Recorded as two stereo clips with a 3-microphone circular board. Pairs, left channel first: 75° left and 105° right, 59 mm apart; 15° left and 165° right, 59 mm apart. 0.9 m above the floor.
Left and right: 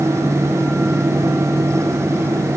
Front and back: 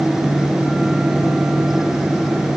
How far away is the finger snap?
No finger snap in this recording.